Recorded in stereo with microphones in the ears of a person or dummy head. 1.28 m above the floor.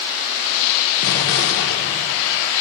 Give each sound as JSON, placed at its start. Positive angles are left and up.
{"t": 1.0, "sound": "an explosion", "side_deg": 70, "distance_m": 1.6}